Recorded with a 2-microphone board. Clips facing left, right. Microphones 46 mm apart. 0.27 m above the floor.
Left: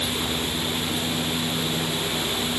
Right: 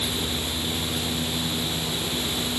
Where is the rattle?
I don't hear a rattle.